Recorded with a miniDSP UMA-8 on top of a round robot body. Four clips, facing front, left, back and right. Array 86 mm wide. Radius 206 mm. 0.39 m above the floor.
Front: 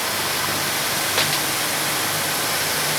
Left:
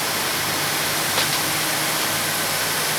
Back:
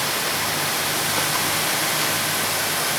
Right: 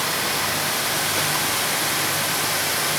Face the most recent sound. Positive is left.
No sound to turn to.